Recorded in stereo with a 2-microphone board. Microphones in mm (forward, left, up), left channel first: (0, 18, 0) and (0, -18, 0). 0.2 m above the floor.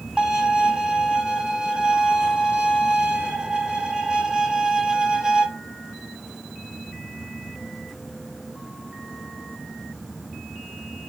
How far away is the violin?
About 0.6 m.